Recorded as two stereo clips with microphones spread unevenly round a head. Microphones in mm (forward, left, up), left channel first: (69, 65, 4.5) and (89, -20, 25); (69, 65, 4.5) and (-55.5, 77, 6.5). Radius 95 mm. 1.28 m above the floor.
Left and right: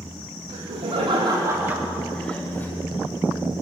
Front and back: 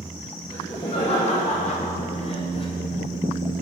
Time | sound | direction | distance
0.5 | laughter | 80° right | 1.2 m